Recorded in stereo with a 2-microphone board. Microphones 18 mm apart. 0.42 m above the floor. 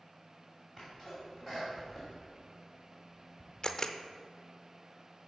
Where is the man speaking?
No man speaking in this recording.